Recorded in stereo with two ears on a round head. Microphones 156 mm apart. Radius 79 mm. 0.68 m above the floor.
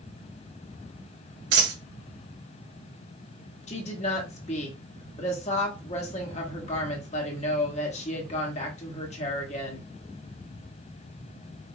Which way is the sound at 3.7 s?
40° left (ahead or behind).